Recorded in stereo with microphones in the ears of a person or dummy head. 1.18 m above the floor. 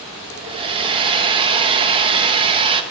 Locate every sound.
0.4 s a hair dryer: 30° right (ahead or behind), 1.0 m